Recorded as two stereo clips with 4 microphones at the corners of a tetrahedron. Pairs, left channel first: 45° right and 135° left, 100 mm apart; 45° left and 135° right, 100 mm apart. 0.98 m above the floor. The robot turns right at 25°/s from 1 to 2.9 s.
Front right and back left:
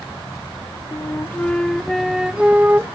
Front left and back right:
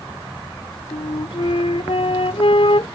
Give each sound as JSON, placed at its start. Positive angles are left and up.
{"t": 0.9, "sound": "a flute", "azimuth_deg": 20}